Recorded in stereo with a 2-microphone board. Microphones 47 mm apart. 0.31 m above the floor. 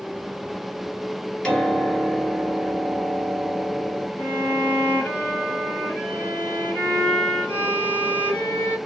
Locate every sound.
1.4 s a piano: 20° left (ahead or behind), 1.6 m
4.2 s a violin: 50° left (ahead or behind), 2 m